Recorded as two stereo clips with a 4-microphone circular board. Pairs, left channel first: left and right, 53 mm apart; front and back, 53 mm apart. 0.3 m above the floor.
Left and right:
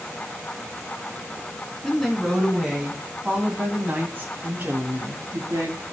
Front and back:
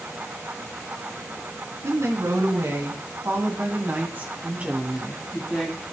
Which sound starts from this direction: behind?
A woman speaking, at 1.8 s.